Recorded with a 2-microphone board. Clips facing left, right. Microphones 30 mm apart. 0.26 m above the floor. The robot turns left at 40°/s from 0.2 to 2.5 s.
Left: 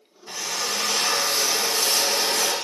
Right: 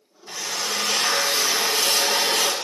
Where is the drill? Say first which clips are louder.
Even; 10° left, 2 m; by 2.5 s 80° right, 2 m.